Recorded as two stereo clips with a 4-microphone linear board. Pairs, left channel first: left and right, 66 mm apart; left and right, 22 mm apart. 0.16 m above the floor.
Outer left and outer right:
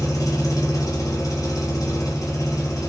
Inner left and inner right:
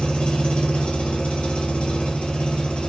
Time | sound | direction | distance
0.0 | an engine running | 55° left (ahead or behind) | 1.0 m